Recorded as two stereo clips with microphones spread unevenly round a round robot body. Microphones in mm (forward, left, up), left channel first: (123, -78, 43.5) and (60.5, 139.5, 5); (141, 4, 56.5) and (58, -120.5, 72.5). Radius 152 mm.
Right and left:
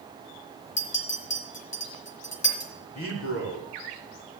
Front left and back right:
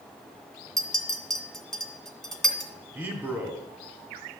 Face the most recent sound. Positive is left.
turn(degrees=-45)